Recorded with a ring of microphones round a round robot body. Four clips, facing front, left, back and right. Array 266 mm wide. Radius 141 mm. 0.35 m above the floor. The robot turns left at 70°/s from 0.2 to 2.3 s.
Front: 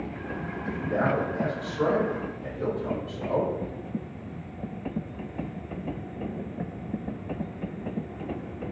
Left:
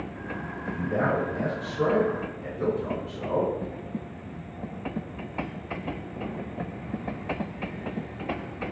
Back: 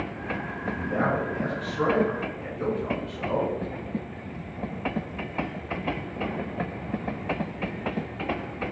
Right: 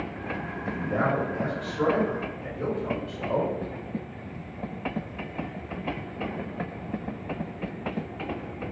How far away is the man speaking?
About 1.8 m.